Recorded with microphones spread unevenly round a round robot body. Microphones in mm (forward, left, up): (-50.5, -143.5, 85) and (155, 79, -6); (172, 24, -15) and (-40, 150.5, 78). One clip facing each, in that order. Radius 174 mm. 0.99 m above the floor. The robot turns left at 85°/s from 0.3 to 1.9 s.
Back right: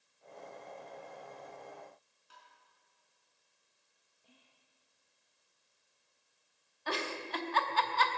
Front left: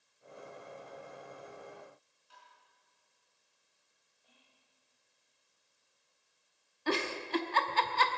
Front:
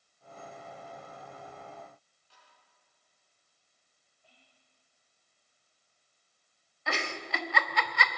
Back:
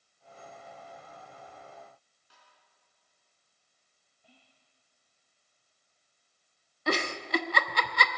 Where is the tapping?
170° right, 4.5 m.